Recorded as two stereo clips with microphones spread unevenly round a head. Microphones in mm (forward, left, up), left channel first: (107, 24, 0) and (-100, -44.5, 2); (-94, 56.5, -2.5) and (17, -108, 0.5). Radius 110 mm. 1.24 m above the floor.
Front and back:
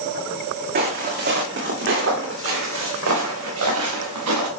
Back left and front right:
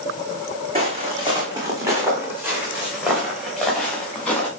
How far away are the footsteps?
About 4 m.